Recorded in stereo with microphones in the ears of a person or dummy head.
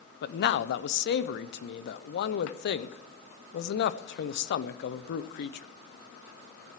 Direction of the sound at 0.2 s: 60° left (ahead or behind).